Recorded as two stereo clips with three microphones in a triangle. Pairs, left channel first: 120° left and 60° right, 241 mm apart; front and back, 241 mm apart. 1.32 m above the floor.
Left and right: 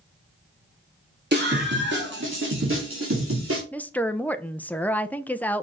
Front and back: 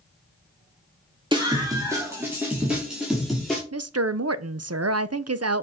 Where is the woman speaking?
155° right, 0.6 m.